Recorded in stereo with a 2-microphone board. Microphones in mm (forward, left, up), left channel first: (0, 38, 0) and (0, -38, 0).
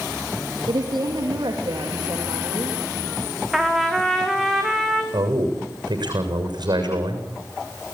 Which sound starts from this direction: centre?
A trumpet, at 3.5 s.